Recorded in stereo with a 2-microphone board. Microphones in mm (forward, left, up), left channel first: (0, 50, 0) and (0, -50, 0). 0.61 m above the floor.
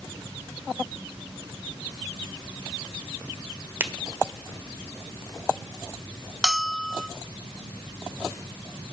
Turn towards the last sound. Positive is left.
turn(degrees=0)  # may be behind; listen again after turning